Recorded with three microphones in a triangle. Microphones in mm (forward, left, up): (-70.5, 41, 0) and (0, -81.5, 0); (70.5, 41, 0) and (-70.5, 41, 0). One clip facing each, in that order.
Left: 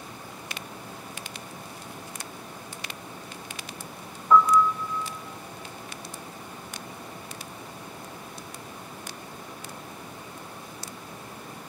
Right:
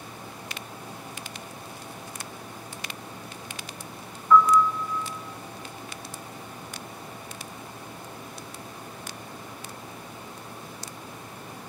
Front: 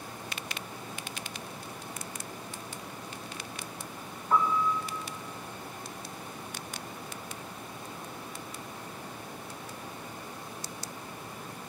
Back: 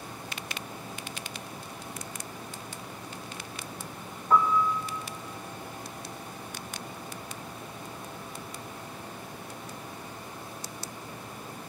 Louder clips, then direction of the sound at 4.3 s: Right 1 dB, back 3 dB; 175° left.